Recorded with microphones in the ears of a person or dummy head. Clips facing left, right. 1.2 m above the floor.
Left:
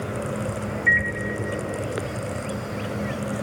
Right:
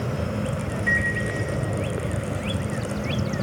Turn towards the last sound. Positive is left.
turn(degrees=70)  # may be behind; listen again after turning